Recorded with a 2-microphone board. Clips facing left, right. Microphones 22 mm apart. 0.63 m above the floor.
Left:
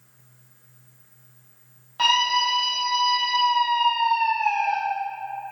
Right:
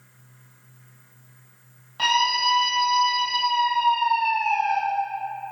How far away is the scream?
About 3 m.